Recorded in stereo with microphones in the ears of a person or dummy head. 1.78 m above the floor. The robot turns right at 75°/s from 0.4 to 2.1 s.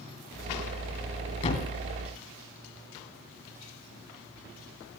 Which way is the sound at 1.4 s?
40° left (ahead or behind).